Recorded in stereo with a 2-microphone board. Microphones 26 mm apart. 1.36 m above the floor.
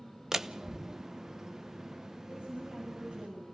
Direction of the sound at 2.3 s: 80° right.